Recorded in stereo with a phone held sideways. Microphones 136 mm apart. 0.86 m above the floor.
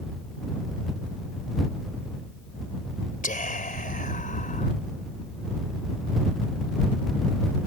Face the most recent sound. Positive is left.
turn(degrees=85)